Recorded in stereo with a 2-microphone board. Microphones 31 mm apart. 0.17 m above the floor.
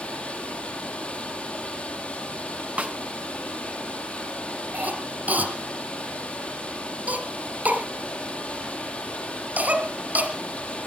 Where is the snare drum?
45° right (ahead or behind), 0.7 m.